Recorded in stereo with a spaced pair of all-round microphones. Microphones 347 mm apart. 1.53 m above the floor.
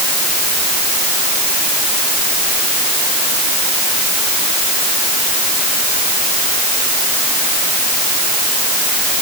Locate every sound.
Only background noise.